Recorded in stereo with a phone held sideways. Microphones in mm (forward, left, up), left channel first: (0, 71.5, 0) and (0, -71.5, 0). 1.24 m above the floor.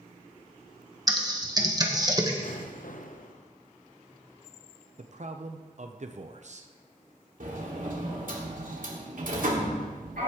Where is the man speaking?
55° right (ahead or behind), 0.7 m.